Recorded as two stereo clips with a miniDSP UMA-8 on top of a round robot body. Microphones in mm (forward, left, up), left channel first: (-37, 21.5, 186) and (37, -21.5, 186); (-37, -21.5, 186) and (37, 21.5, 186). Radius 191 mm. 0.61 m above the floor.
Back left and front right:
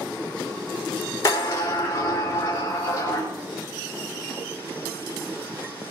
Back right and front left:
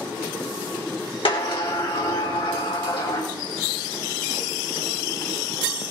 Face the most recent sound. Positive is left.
turn(degrees=-155)